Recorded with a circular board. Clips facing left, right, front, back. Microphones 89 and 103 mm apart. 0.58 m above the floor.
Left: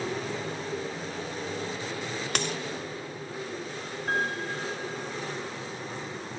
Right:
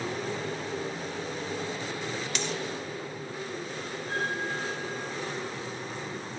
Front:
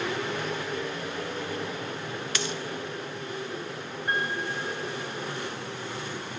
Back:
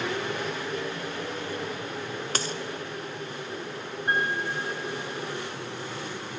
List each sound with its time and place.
2.4 s a dropped coin: 130° left, 1.0 m
4.1 s a piano: 115° left, 5 m